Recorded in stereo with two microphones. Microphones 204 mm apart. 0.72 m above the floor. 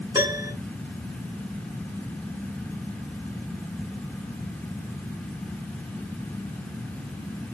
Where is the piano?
15° right (ahead or behind), 2.5 m.